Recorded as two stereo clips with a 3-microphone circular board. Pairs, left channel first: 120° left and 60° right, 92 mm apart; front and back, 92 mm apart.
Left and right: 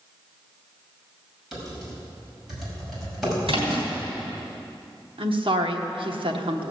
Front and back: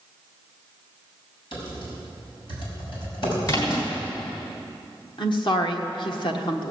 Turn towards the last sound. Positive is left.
turn(degrees=-35)